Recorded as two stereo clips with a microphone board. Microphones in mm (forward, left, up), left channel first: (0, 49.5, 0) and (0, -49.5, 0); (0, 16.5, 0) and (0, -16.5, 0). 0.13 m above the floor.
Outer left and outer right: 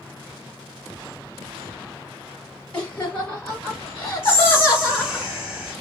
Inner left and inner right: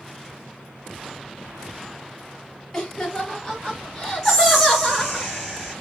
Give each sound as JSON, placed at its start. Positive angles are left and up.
{"t": 2.7, "sound": "laughter", "side_deg": 15, "distance_m": 1.6}
{"t": 4.2, "sound": "whispering", "side_deg": -10, "distance_m": 1.3}